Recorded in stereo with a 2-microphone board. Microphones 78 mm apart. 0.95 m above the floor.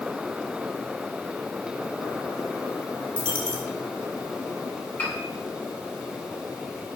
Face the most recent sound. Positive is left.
turn(degrees=20)  # may be behind; listen again after turning